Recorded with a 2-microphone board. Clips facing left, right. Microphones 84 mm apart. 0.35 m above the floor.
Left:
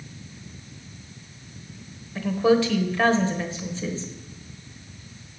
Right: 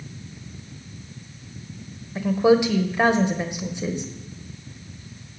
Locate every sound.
2.1 s a woman speaking: 15° right (ahead or behind), 1.0 m